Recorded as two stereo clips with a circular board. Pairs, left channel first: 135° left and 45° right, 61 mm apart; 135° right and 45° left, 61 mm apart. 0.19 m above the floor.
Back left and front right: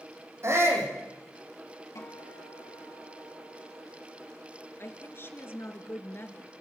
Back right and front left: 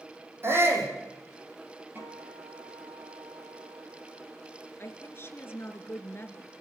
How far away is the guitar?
About 6.5 m.